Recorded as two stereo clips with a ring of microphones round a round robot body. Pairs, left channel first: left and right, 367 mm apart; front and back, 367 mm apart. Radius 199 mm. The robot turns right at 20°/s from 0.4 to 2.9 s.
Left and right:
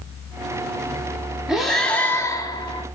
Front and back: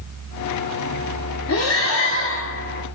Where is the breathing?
5° right, 0.6 m; by 2.9 s 25° left, 0.6 m.